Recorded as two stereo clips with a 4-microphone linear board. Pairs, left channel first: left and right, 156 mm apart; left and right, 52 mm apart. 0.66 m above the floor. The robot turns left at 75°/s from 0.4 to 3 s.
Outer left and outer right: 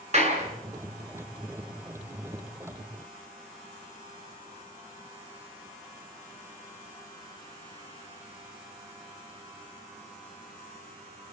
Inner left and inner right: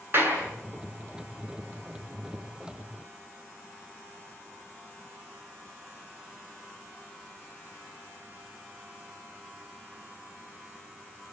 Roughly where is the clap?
Right.